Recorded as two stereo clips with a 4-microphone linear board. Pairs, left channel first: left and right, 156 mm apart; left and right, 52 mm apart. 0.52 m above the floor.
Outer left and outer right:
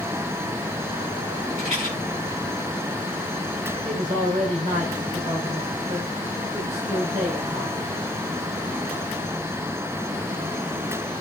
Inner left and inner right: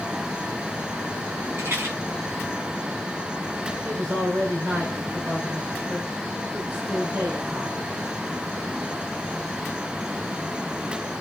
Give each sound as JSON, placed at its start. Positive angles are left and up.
{"t": 1.6, "sound": "a rattle", "side_deg": -50, "distance_m": 6.0}
{"t": 3.9, "sound": "a man speaking", "side_deg": -50, "distance_m": 3.0}